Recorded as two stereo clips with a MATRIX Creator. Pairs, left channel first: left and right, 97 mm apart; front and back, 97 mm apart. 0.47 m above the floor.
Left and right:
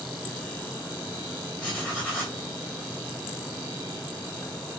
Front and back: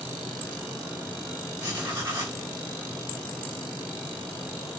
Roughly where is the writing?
Behind left.